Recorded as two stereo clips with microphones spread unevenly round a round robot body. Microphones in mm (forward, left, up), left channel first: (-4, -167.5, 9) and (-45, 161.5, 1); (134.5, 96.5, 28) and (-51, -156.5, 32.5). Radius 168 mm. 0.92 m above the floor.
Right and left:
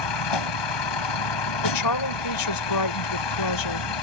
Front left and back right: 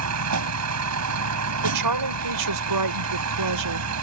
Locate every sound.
0.0 s a vehicle: 90° right
1.6 s a woman speaking: 105° right